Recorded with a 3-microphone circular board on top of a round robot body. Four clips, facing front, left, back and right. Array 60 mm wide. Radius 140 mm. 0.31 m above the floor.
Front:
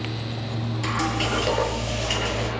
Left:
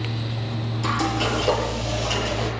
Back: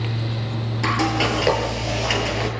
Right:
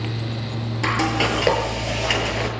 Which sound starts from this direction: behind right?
Frying, at 0.8 s.